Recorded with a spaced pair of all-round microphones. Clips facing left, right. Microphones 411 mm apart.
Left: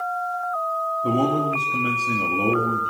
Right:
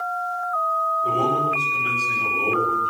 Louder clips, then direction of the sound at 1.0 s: Left 4 dB; 70° left (ahead or behind).